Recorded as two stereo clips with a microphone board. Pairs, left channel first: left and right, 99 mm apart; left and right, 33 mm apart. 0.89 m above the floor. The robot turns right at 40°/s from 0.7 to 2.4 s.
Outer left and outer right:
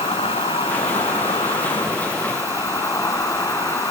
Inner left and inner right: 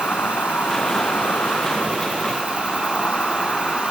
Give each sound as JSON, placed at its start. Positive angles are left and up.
{"t": 0.0, "sound": "an insect", "azimuth_deg": 75, "distance_m": 1.8}